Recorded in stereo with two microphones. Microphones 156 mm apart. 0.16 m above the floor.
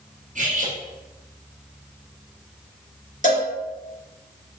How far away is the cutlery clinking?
About 1.7 m.